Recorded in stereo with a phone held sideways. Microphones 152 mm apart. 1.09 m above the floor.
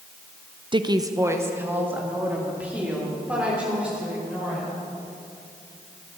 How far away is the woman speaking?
About 0.5 m.